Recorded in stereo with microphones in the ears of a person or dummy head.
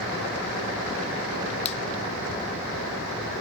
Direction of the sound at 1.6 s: 35° left (ahead or behind).